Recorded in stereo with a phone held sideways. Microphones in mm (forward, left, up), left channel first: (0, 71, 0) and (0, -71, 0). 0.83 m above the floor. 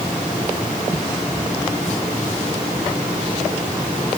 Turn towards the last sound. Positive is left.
No sound to turn to.